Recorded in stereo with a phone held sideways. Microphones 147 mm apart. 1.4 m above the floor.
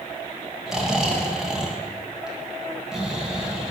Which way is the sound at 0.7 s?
5° right (ahead or behind).